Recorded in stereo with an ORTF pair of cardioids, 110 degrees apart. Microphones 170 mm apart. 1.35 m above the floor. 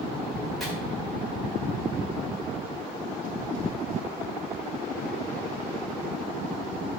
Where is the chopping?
Straight ahead, 4 m.